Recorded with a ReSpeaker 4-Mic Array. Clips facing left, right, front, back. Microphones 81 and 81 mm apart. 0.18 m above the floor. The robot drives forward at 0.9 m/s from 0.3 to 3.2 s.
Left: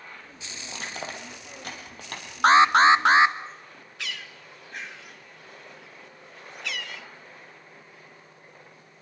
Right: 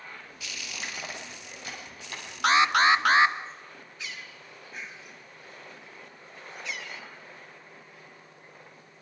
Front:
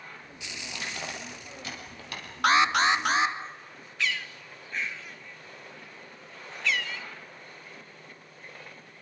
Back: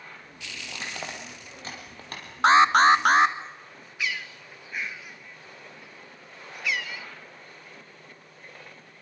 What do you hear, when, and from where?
0.7 s crushing: 115° left, 5 m; by 2.2 s 130° left, 5.5 m
2.4 s an alarm: 125° left, 0.9 m; by 3.4 s 155° left, 1.4 m
4.0 s a bird: 100° left, 1.1 m